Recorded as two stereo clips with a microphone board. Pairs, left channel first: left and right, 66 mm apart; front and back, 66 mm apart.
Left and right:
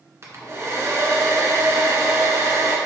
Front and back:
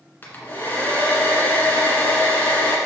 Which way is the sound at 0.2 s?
55° right.